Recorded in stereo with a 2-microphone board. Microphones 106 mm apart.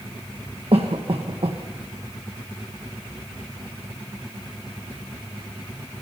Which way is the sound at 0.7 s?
65° right (ahead or behind).